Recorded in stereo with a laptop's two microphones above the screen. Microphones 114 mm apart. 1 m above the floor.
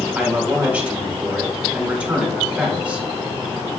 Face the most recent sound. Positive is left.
turn(degrees=-10)  # may be behind; listen again after turning